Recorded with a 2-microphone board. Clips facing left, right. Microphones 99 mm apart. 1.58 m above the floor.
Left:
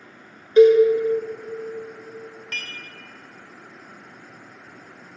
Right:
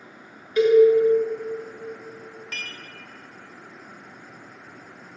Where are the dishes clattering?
5° right (ahead or behind), 0.7 m.